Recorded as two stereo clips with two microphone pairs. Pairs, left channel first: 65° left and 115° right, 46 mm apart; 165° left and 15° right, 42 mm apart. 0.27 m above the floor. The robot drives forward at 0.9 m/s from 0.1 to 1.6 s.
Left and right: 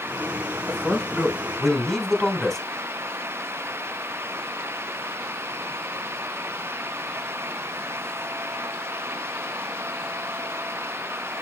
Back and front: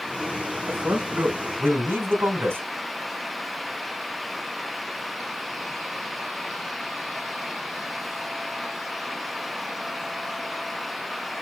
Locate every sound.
0.7 s a man speaking: 15° right, 3.5 m; by 2.6 s 20° right, 2.5 m